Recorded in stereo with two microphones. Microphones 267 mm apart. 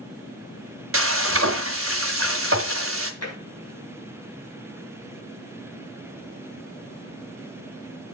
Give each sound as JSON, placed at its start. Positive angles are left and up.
{"t": 0.9, "sound": "frying", "side_deg": -55, "distance_m": 1.3}
{"t": 3.2, "sound": "tapping", "side_deg": 70, "distance_m": 4.0}